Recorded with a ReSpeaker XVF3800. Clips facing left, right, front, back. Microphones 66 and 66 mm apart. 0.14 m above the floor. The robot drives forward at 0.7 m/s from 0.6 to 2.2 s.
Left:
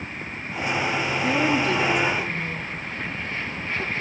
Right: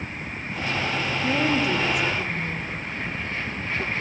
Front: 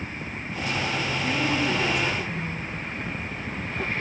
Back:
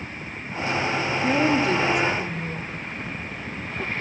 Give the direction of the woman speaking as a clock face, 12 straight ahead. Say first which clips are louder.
Left 1 dB, back 6 dB; 6 o'clock.